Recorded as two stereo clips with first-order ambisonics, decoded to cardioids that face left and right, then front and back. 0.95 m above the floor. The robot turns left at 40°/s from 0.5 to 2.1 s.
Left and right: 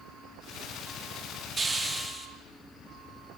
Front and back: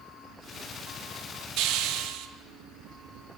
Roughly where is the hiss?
Behind.